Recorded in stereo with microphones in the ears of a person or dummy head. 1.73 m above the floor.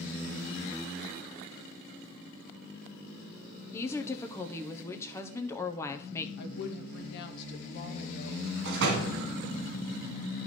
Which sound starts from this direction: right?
A door slam, at 8.7 s.